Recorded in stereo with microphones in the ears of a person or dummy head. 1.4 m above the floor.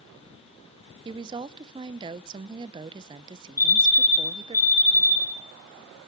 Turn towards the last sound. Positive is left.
turn(degrees=50)  # may be behind; listen again after turning